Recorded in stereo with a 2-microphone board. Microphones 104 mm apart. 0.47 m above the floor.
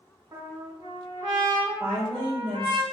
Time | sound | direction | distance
0.3 | a trumpet | 45° right (ahead or behind) | 1.2 m
1.8 | a woman speaking | 50° right (ahead or behind) | 1.8 m